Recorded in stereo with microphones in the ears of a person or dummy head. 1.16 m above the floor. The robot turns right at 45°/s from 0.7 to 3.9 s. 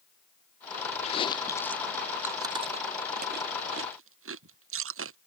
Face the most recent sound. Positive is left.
turn(degrees=-60)  # may be behind; listen again after turning